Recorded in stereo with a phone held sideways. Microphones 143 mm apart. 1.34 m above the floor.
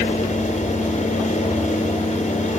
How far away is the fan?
About 2.5 m.